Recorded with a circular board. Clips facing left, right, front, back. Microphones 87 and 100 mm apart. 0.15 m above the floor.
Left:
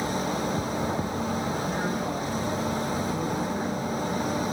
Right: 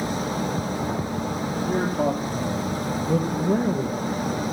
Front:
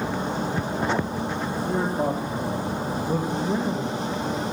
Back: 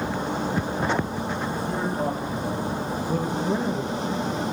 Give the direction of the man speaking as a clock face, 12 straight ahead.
2 o'clock.